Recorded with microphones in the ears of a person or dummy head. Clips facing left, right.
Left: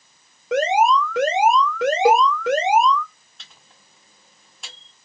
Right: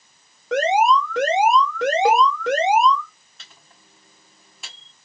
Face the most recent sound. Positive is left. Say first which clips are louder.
# right 2 dB
turn(degrees=5)  # may be behind; listen again after turning